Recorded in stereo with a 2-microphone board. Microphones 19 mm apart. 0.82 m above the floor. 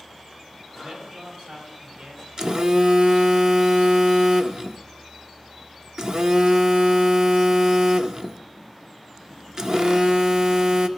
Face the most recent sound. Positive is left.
turn(degrees=-35)  # may be behind; listen again after turning